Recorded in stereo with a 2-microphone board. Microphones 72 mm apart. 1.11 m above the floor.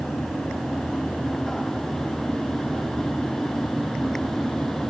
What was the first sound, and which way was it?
Only background noise.